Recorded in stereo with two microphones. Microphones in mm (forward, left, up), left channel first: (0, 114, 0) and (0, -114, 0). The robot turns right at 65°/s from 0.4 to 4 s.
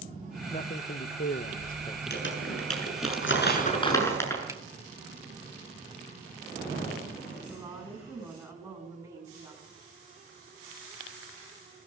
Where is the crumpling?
45° left (ahead or behind), 7 m; by 4.4 s 10° left (ahead or behind), 7 m.